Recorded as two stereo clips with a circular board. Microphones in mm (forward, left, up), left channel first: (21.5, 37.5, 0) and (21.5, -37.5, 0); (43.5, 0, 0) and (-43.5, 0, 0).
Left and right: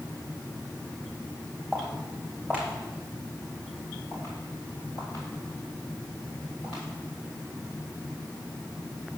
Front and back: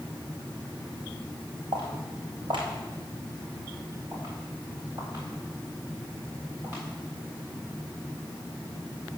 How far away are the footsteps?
About 4 m.